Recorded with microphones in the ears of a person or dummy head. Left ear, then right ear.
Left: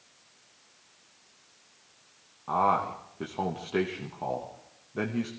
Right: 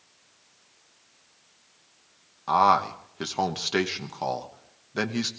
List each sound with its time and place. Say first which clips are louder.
2.5 s a man speaking: right 5 dB; 65° right (ahead or behind), 1.1 m